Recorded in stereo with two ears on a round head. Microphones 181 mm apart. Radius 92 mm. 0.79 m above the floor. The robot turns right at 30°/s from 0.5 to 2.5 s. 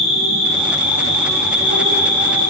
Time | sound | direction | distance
0.0 | an insect | 85° right | 5 m